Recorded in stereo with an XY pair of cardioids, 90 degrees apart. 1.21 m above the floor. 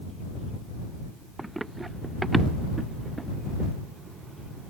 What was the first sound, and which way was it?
Running footsteps, 20° right.